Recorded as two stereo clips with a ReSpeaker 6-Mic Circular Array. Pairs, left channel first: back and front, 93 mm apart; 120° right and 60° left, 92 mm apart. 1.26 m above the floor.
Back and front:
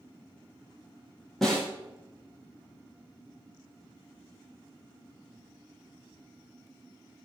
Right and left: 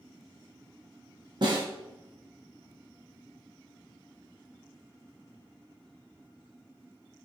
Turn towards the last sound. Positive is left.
turn(degrees=95)